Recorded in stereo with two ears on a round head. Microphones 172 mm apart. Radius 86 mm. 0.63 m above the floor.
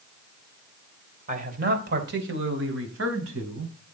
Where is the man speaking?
40° right (ahead or behind), 3 m; by 3.7 s 80° right, 5.5 m.